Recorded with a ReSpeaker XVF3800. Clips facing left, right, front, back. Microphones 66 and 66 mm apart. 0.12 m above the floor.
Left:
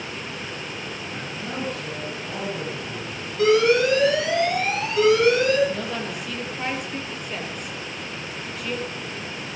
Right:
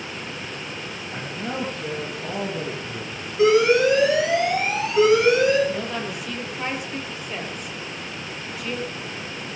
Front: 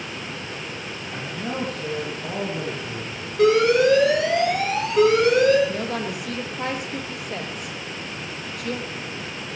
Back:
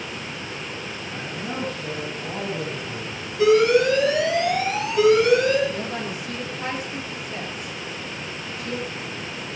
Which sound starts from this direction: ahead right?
A man speaking, at 1.1 s.